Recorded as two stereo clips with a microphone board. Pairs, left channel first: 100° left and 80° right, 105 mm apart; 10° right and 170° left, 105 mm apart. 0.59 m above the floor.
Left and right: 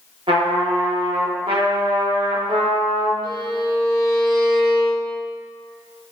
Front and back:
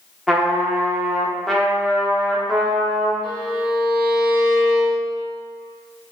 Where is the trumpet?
100° right, 0.5 m.